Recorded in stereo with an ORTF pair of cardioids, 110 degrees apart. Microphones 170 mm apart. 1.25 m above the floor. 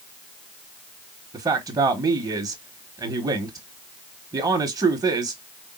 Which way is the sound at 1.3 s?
20° right.